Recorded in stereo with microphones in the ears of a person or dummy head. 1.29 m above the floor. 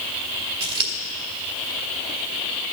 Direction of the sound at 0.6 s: 55° right (ahead or behind).